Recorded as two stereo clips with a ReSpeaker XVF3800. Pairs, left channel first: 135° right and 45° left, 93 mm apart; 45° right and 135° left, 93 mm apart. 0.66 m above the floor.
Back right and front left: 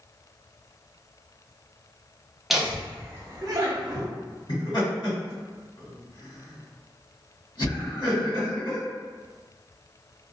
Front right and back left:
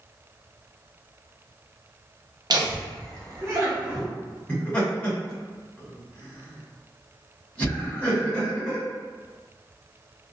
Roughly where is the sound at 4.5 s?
Behind right.